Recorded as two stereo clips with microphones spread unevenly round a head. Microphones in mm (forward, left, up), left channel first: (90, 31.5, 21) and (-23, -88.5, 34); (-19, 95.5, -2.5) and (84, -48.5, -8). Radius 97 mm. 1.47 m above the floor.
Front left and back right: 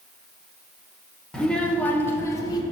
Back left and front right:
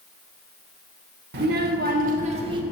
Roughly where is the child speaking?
Ahead right.